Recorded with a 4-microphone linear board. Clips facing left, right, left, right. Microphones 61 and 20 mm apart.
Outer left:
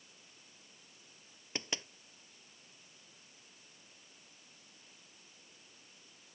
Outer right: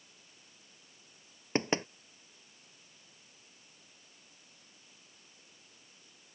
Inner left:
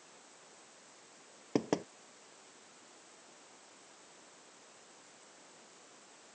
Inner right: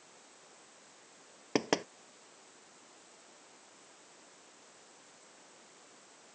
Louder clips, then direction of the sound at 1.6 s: Outer right 11 dB, inner right 2 dB; 40° right (ahead or behind).